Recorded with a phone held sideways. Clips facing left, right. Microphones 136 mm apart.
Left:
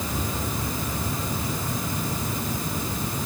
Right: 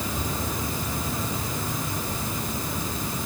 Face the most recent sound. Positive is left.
No sound to turn to.